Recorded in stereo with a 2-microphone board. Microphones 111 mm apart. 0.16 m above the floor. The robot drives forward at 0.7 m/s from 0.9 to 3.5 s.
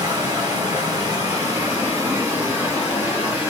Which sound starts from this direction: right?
Running water, at 0.0 s.